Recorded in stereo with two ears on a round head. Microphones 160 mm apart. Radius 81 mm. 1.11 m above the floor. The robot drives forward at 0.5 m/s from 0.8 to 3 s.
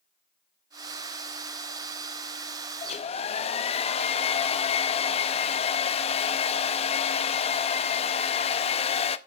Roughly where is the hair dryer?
Left.